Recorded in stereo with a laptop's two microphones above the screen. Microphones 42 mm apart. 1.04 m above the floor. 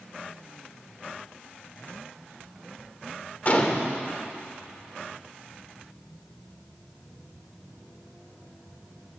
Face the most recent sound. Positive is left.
turn(degrees=40)  # may be behind; listen again after turning